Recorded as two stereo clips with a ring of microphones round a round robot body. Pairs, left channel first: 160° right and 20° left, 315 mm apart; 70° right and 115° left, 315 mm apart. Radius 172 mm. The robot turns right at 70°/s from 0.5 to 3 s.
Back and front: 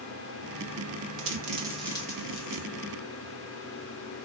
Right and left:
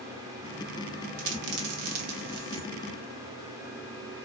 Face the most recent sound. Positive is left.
turn(degrees=-165)